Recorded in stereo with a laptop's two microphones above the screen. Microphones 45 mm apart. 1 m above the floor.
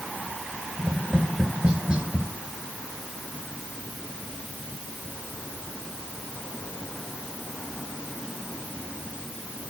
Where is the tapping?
20° right (ahead or behind), 1.2 m.